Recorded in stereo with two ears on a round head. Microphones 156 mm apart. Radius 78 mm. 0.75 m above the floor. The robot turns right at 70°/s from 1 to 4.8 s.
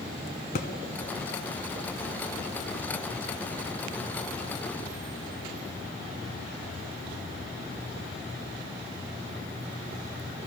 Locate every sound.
0.6 s a thud: 50° left (ahead or behind), 0.9 m